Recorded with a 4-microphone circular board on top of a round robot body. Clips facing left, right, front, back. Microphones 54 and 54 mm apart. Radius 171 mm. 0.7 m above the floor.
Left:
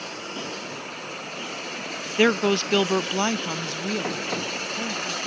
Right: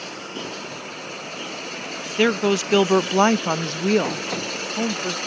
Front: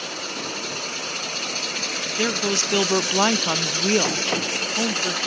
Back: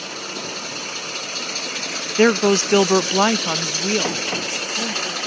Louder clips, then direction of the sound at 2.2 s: Right 1 dB, back 10 dB; 170° left.